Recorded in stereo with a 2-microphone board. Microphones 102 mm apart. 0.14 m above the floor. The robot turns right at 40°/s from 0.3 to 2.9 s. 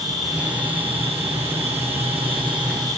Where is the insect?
140° right, 7.5 m; by 3.0 s 35° right, 7.5 m.